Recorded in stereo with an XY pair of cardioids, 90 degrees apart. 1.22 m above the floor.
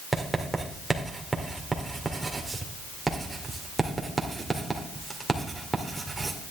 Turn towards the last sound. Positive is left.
turn(degrees=-20)